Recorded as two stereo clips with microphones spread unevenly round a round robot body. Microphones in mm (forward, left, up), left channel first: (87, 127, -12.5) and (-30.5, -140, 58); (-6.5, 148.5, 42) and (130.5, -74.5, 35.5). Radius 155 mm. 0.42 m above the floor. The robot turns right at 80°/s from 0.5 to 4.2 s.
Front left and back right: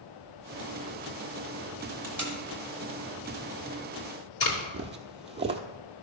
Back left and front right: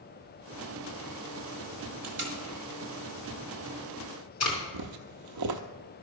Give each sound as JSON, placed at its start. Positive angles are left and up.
{"t": 2.0, "sound": "tape being pulled", "azimuth_deg": -80, "distance_m": 3.5}
{"t": 4.7, "sound": "footsteps", "azimuth_deg": -55, "distance_m": 0.7}